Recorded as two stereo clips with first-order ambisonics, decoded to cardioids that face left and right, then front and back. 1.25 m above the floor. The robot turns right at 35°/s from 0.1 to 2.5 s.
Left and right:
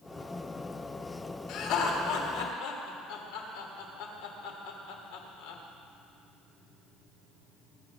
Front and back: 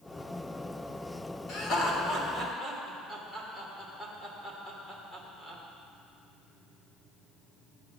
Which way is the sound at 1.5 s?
50° left.